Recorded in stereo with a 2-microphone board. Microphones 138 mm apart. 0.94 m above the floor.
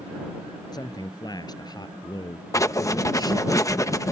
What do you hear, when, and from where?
0.7 s a man speaking: 30° left (ahead or behind)
2.5 s writing: 25° left (ahead or behind)